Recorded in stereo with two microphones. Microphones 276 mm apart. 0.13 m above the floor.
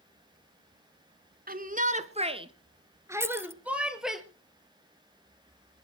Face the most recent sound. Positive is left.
turn(degrees=-10)  # may be behind; listen again after turning